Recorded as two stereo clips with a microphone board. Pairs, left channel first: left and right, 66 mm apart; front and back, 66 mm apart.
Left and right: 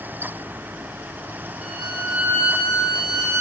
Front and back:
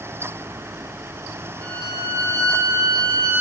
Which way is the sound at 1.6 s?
170° right.